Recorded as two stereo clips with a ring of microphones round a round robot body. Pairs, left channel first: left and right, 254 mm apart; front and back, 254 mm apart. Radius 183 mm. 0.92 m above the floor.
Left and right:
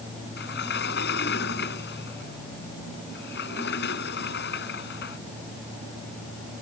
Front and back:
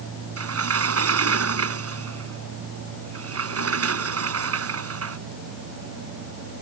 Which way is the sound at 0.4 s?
155° left.